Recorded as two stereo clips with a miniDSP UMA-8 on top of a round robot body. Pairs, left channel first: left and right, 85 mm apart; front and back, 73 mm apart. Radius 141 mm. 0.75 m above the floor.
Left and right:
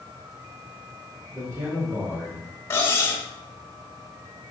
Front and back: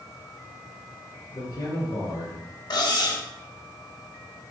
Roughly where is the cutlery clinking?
Ahead left.